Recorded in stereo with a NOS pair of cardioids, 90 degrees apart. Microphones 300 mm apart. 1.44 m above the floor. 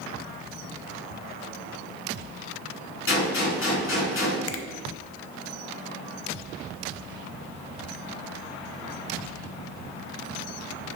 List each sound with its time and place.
3.1 s a gunshot: 45° left, 3.5 m
4.5 s a finger snap: 50° left, 0.8 m